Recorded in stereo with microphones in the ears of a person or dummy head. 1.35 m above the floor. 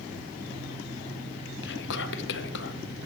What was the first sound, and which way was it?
Whispering, 60° left (ahead or behind).